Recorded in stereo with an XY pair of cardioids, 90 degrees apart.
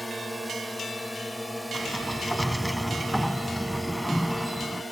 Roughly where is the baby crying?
No baby crying in this recording.